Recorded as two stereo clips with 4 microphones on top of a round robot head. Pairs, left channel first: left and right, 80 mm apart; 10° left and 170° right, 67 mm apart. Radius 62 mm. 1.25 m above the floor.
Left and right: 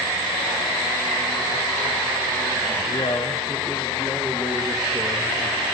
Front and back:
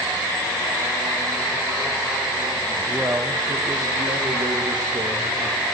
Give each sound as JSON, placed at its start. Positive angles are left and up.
{"t": 2.9, "sound": "a man speaking", "azimuth_deg": 115, "distance_m": 0.8}